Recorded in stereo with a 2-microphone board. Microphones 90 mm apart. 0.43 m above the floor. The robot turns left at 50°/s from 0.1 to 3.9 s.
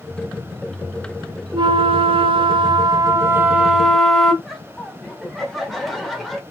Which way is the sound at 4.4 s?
Centre (ahead or behind).